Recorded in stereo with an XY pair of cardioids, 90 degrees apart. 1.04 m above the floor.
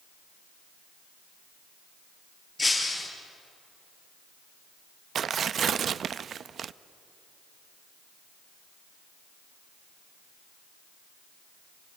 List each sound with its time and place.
2.6 s breaking glass: 20° left, 6 m
5.2 s tearing paper: 60° right, 0.5 m